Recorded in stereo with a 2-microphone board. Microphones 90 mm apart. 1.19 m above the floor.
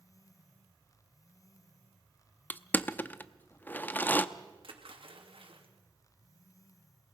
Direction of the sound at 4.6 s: 75° right (ahead or behind).